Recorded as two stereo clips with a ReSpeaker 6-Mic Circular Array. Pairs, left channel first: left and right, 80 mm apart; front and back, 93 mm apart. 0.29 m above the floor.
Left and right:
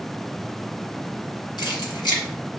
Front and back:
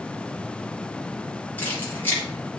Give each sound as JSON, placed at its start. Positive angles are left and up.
{"t": 1.6, "sound": "keys jangling", "azimuth_deg": 70, "distance_m": 2.0}